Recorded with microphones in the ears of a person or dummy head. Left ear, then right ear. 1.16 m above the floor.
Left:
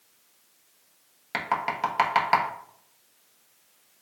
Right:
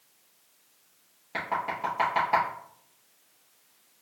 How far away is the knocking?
About 1.0 m.